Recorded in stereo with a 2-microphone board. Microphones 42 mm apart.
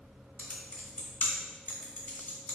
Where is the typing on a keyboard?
35° left (ahead or behind), 0.9 m.